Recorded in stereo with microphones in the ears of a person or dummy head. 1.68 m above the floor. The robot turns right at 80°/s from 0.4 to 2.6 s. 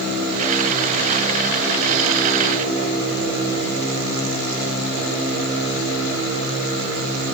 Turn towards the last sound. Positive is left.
No sound to turn to.